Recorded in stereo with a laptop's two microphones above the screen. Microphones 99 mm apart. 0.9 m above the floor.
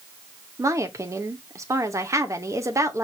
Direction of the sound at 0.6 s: 30° right (ahead or behind).